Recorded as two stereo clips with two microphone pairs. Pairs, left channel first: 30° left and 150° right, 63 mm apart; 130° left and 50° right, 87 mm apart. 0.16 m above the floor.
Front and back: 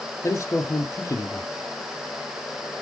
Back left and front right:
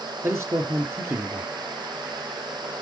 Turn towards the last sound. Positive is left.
turn(degrees=5)